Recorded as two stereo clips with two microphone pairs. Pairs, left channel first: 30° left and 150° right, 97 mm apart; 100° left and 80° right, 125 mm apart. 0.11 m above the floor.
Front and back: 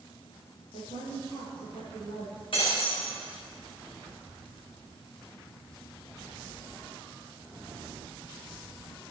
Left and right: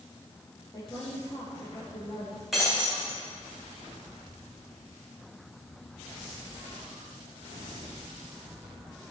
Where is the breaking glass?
5° left, 5.5 m.